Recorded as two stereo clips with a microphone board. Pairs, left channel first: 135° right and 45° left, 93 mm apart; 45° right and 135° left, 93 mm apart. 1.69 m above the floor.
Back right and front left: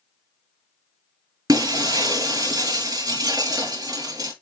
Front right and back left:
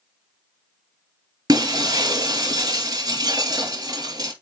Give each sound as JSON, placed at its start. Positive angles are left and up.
{"t": 1.5, "sound": "breaking glass", "azimuth_deg": 95, "distance_m": 4.0}